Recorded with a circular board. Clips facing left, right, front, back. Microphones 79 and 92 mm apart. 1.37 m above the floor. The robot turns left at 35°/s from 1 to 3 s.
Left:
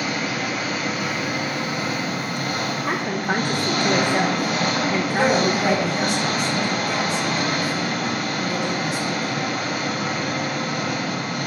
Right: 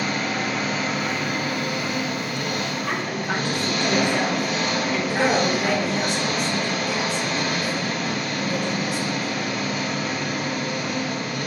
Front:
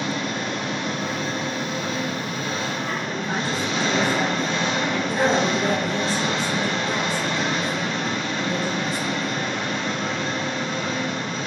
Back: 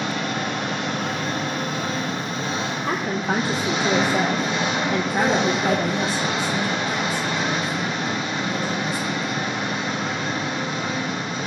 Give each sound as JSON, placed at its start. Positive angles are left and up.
{"t": 0.0, "sound": "an engine running", "azimuth_deg": 175, "distance_m": 2.0}
{"t": 2.9, "sound": "a woman speaking", "azimuth_deg": 155, "distance_m": 0.6}
{"t": 5.1, "sound": "a woman speaking", "azimuth_deg": 0, "distance_m": 3.0}